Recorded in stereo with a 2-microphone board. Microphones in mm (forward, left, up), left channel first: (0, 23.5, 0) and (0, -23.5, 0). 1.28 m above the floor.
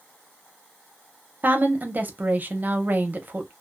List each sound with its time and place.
1.4 s a woman speaking: 40° right (ahead or behind), 0.7 m